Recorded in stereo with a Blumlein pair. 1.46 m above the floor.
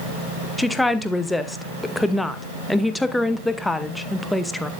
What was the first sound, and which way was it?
A woman speaking, 5° left.